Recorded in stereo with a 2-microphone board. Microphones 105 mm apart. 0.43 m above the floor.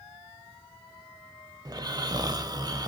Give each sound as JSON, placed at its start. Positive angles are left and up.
{"t": 1.6, "sound": "snoring", "side_deg": -40, "distance_m": 0.5}